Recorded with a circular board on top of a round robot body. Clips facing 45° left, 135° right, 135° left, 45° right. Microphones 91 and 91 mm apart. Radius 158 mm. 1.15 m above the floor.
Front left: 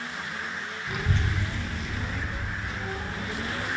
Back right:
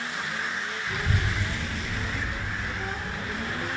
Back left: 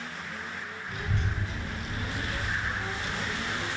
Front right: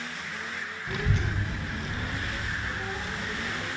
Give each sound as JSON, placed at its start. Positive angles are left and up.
{"t": 0.9, "sound": "a child speaking", "azimuth_deg": -35, "distance_m": 0.7}